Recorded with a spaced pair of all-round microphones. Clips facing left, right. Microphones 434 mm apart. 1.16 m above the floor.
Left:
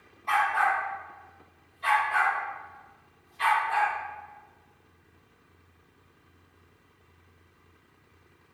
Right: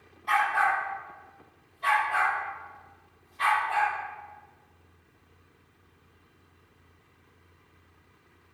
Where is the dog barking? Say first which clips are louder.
Even; 30° right (ahead or behind), 1.2 m; by 3.9 s 70° right (ahead or behind), 4.5 m.